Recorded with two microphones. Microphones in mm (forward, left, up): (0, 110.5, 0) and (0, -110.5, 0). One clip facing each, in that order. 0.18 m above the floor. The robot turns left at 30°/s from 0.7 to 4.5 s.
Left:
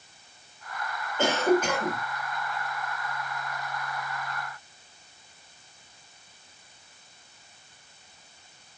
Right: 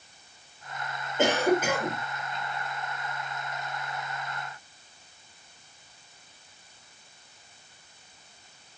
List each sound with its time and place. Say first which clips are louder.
1.2 s a cough: left 1 dB; 20° right (ahead or behind), 4 m; by 2.0 s 5° left (ahead or behind), 4 m